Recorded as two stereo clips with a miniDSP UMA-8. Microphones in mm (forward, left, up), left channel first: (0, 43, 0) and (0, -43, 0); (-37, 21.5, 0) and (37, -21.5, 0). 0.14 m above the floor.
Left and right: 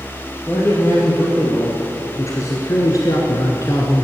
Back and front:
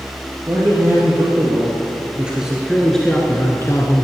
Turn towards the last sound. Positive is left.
turn(degrees=135)